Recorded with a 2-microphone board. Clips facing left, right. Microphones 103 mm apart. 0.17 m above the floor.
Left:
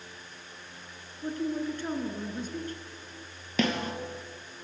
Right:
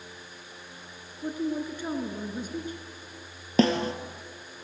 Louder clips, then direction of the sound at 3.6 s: Right 6 dB; 35° right (ahead or behind).